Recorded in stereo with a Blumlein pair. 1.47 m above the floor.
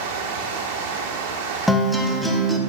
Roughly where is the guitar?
Ahead.